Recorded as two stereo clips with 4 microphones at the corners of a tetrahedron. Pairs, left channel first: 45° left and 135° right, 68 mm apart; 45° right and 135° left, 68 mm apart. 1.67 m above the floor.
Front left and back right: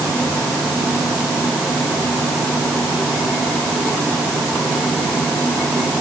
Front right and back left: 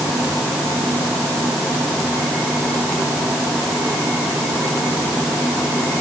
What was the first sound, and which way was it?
Only background noise.